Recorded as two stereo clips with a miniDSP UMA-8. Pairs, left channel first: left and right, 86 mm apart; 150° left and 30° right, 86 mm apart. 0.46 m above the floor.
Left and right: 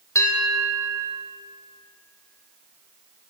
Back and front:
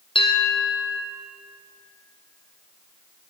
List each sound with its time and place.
0.1 s a bell: 150° left, 3.5 m